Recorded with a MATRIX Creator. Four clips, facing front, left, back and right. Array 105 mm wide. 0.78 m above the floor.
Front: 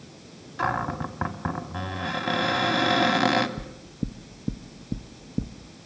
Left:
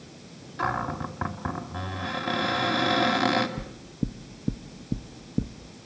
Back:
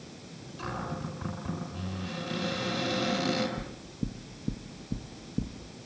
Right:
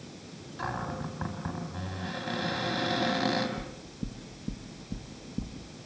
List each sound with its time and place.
0.6 s a cupboard door: 20° left, 2 m
3.6 s knocking: 60° left, 0.7 m